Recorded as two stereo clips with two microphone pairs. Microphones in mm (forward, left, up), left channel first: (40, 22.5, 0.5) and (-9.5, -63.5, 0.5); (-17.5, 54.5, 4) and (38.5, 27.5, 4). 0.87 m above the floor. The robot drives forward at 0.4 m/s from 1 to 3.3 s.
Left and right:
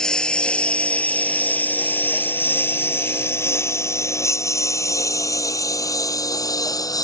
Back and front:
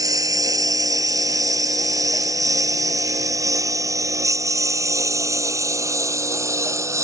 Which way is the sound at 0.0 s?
25° right.